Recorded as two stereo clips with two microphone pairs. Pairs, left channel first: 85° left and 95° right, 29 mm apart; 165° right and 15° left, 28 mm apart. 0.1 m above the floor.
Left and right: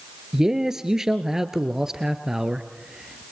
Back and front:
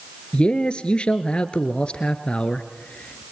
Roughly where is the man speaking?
Behind right.